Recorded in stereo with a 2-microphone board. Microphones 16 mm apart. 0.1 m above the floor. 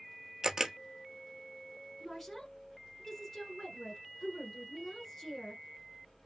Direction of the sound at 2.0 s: 20° left (ahead or behind).